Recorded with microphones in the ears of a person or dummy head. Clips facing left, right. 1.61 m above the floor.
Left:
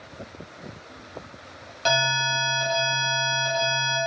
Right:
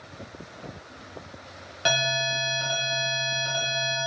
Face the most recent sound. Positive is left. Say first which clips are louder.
# left 2 dB
turn(degrees=-20)  # may be behind; listen again after turning